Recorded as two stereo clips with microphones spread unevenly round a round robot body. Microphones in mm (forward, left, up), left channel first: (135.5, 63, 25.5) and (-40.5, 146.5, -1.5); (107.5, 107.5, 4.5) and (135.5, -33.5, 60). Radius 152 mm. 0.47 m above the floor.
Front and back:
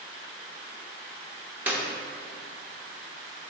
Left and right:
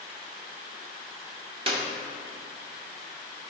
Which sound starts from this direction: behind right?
A clap, at 1.7 s.